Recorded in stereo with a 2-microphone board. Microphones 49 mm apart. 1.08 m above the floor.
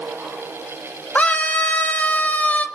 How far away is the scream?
About 2 m.